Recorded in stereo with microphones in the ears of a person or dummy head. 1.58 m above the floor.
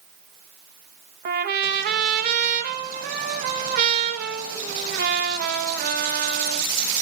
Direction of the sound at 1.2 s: 50° right (ahead or behind).